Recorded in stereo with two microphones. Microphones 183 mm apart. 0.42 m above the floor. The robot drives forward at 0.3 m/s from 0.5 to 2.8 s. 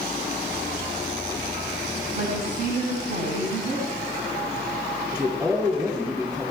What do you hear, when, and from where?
2.1 s a woman speaking: 55° right (ahead or behind), 3.5 m; by 3.9 s 50° right (ahead or behind), 3.5 m
5.1 s a man speaking: 20° right (ahead or behind), 10 m